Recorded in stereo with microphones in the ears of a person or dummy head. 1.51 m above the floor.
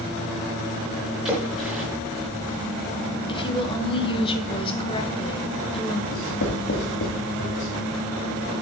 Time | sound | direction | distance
1.2 | a splash | 5° right (ahead or behind) | 4.5 m
3.3 | a woman speaking | 25° left (ahead or behind) | 1.4 m
6.1 | writing | 60° left (ahead or behind) | 2.5 m